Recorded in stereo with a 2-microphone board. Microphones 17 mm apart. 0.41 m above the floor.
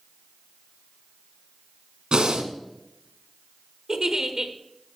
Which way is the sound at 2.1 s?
75° right (ahead or behind).